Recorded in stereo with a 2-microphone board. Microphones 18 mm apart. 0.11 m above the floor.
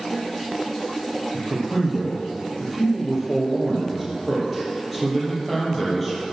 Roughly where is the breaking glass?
No breaking glass in this recording.